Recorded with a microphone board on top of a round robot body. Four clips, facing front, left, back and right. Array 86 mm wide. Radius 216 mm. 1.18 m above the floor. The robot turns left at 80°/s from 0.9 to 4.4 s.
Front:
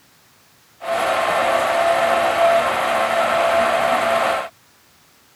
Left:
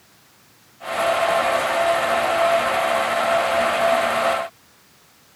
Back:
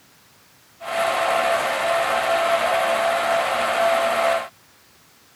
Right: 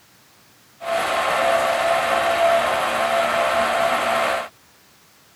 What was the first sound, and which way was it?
Only background noise.